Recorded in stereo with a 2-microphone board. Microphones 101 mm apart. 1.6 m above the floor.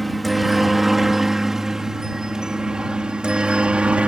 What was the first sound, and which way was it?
A helicopter, centre (ahead or behind).